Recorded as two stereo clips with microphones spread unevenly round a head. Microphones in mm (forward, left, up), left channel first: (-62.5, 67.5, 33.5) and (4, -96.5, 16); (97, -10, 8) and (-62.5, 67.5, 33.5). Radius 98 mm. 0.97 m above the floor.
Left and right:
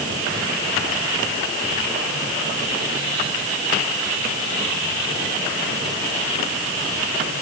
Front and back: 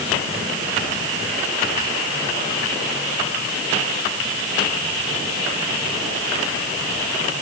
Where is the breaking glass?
No breaking glass in this recording.